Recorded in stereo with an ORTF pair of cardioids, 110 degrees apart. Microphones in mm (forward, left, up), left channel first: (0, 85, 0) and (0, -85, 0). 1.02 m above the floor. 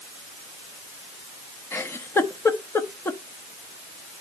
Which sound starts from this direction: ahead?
A giggle, at 1.7 s.